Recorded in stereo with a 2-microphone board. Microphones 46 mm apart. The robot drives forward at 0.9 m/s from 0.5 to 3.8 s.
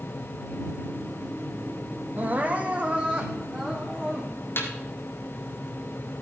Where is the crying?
40° right (ahead or behind), 1.1 m; by 4.5 s 20° right (ahead or behind), 2.5 m.